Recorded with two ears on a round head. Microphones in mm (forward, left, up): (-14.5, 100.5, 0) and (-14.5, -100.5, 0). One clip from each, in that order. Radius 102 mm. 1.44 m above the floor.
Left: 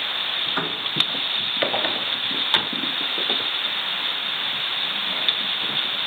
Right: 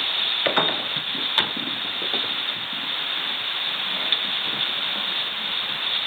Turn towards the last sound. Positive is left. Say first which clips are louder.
# right 4 dB
turn(degrees=-25)  # may be behind; listen again after turning